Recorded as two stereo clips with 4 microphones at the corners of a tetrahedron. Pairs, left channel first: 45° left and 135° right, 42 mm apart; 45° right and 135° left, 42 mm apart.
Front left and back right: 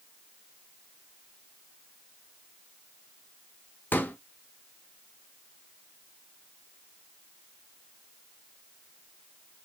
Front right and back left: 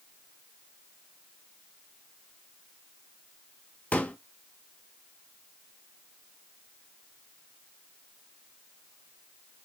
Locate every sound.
3.9 s a pop: 5° left, 0.8 m